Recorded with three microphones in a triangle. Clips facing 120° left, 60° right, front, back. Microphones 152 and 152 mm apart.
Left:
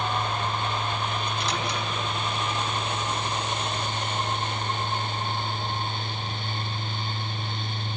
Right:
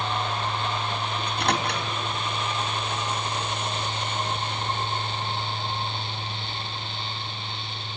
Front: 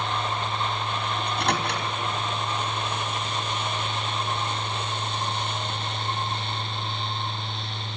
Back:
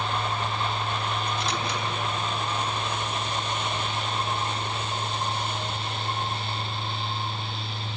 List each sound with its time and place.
1.2 s a microwave: 30° right, 3 m